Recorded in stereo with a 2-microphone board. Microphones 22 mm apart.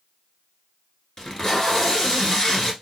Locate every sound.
1.2 s tape being pulled: 30° left (ahead or behind), 1.0 m